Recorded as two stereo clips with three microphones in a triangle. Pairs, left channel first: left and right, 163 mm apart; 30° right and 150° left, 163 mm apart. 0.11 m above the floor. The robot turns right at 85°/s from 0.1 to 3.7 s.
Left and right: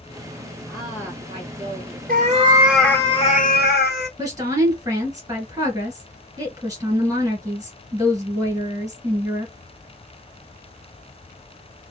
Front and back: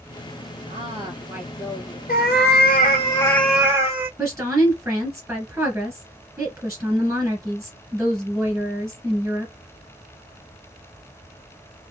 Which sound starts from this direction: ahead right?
A cat meowing, at 2.1 s.